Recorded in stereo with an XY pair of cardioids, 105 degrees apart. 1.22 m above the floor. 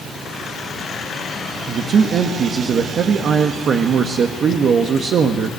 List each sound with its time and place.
1.7 s a man speaking: 55° right, 1.4 m